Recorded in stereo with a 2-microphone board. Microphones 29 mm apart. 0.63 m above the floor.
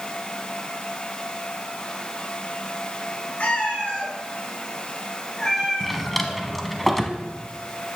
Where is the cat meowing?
45° left (ahead or behind), 2 m; by 6.4 s 10° left (ahead or behind), 3.5 m.